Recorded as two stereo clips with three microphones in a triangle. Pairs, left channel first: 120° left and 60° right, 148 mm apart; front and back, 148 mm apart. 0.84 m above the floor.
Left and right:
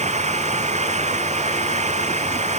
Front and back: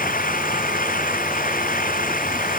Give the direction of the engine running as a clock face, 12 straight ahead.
1 o'clock.